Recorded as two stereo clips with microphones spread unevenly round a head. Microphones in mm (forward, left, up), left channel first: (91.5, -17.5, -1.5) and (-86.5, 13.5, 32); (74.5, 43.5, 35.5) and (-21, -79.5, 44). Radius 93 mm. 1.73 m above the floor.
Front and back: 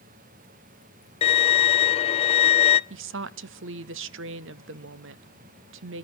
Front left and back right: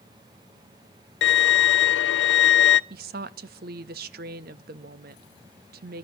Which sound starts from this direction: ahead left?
A violin, at 1.2 s.